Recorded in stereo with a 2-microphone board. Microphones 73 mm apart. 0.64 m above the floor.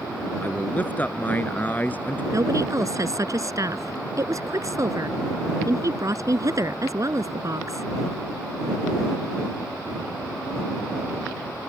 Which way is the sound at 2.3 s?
50° right (ahead or behind).